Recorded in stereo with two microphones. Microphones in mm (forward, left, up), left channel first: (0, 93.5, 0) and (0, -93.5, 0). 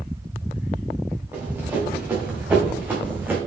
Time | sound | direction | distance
1.3 | running footsteps | 10° right (ahead or behind) | 4 m